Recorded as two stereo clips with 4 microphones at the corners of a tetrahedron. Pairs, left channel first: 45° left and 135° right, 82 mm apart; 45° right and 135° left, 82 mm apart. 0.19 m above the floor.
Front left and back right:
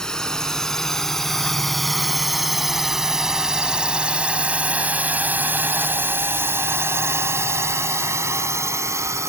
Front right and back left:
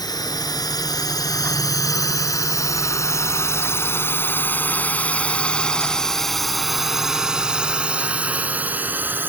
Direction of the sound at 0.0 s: 35° right.